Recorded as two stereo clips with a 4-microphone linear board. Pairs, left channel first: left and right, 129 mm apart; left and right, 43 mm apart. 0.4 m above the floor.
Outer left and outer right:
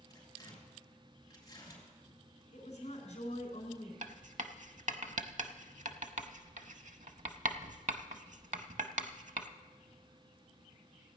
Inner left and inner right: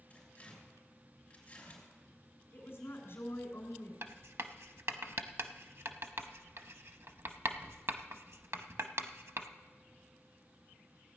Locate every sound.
0.1 s tearing paper: 25° left (ahead or behind), 4.5 m
2.5 s a woman speaking: 55° left (ahead or behind), 3 m
4.0 s writing: 65° right (ahead or behind), 0.7 m